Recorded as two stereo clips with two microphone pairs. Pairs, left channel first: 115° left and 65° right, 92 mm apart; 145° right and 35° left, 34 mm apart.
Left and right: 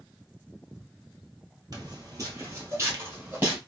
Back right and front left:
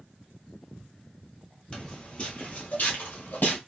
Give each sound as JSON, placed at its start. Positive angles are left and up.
{"t": 1.7, "sound": "footsteps", "azimuth_deg": -85, "distance_m": 1.4}